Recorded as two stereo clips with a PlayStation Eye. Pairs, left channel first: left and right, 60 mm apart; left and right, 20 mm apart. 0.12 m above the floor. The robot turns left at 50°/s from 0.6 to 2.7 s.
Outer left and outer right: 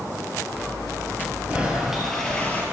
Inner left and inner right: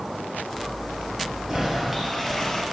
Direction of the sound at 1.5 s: 155° right.